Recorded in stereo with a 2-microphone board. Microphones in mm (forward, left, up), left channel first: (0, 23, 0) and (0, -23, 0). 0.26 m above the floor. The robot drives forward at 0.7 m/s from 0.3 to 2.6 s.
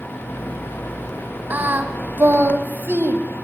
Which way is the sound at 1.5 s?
40° right (ahead or behind).